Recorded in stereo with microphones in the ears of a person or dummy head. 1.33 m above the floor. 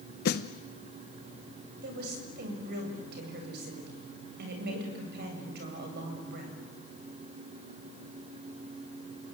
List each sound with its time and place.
0.2 s a snare drum: 55° left (ahead or behind), 0.8 m
1.8 s a woman speaking: 60° right (ahead or behind), 8 m